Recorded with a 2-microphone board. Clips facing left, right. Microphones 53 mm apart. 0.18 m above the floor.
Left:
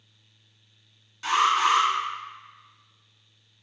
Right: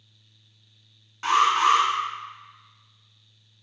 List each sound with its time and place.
1.2 s an alarm: 40° right (ahead or behind), 1.4 m